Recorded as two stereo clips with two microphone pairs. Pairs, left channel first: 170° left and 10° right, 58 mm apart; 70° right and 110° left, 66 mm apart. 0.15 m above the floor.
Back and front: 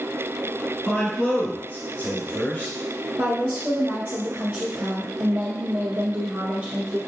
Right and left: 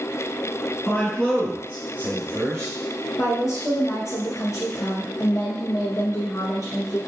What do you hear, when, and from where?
0.9 s a man speaking: 120° right, 1.1 m; by 2.7 s 115° left, 1.5 m
3.2 s a woman speaking: 60° right, 2 m